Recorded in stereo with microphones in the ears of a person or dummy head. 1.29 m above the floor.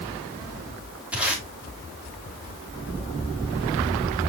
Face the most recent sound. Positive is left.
turn(degrees=-10)  # may be behind; listen again after turning